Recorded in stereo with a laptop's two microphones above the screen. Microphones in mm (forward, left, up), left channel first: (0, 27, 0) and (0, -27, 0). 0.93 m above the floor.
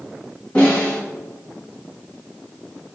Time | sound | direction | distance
0.6 | a snare drum | 30° left (ahead or behind) | 1.4 m